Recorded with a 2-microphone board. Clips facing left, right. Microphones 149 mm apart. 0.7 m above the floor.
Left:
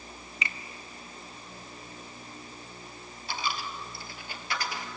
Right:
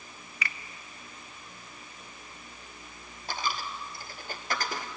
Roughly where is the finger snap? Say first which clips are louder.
Even; left.